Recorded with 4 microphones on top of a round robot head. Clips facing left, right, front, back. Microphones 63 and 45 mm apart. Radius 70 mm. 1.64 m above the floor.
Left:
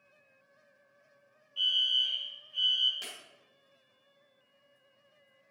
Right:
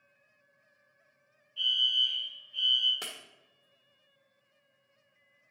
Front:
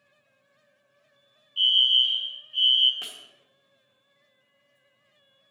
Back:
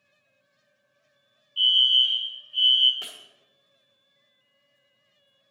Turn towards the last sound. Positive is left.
turn(degrees=-85)